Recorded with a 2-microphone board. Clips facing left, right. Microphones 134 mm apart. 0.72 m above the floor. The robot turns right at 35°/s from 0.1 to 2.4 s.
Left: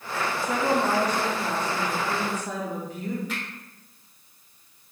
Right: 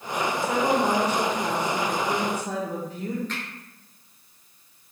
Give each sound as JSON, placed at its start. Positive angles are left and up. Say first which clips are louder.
{"t": 0.4, "sound": "a woman speaking", "louder": "right 1 dB", "azimuth_deg": -105, "distance_m": 1.9}
{"t": 3.3, "sound": "a finger snap", "louder": "left 1 dB", "side_deg": 10, "distance_m": 2.5}